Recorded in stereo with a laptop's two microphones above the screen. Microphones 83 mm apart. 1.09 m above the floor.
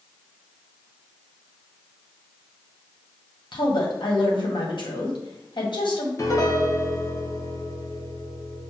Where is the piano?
40° left (ahead or behind), 0.9 m.